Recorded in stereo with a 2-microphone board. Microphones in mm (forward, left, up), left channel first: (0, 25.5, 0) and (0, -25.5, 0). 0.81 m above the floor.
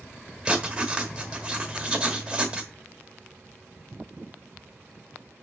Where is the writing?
20° right (ahead or behind), 1.2 m.